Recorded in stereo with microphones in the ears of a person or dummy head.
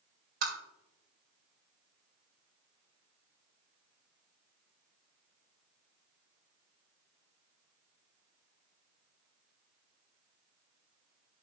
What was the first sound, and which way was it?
Tapping, 55° right (ahead or behind).